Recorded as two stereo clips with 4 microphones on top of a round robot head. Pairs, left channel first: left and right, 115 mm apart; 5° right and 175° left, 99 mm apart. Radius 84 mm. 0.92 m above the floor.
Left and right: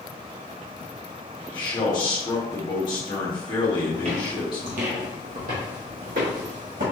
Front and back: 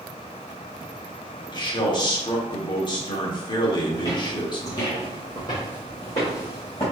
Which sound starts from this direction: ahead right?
Footsteps, at 3.9 s.